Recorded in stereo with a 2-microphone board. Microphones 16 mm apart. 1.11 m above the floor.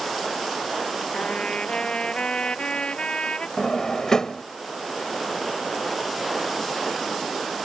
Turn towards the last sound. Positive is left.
turn(degrees=40)  # may be behind; listen again after turning